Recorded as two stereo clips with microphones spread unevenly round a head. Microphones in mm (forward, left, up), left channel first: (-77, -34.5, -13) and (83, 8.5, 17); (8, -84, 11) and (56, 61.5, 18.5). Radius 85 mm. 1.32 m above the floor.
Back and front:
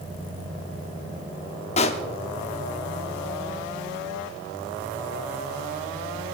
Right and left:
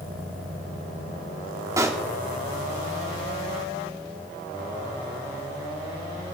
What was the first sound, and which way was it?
A pop, 140° left.